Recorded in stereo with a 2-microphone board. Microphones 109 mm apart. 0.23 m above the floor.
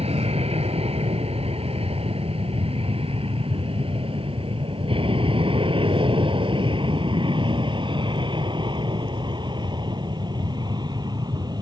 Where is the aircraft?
70° right (ahead or behind); by 11.6 s 40° right (ahead or behind).